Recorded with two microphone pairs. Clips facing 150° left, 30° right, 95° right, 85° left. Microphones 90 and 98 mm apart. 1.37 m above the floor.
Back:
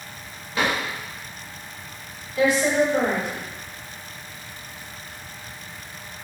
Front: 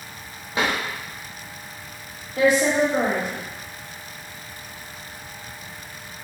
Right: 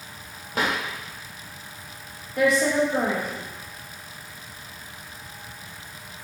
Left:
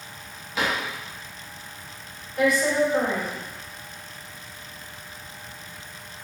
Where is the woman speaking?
75° right, 1.7 m.